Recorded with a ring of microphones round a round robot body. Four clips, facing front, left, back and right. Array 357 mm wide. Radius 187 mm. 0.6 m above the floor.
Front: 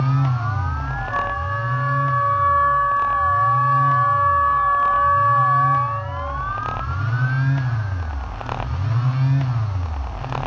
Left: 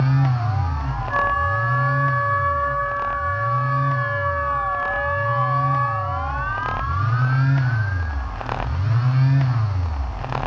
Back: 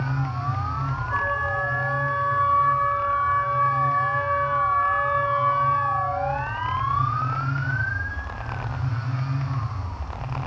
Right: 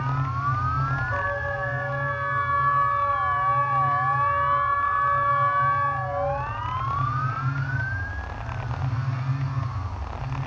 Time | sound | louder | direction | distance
1.1 | a flute | left 7 dB, front 2 dB | 35° left | 4 m